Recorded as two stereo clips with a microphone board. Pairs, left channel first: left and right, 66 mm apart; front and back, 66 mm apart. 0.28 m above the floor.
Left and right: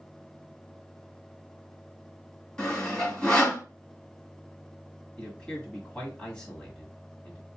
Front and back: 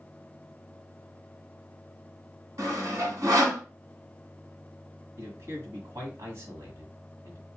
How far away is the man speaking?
About 1.6 m.